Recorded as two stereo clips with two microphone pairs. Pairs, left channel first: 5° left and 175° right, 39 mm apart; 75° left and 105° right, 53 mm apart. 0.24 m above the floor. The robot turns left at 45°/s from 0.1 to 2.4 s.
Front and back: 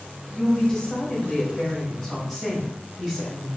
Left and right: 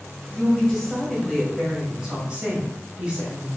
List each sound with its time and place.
0.3 s a woman speaking: 20° left, 1.3 m; by 3.5 s 70° right, 1.3 m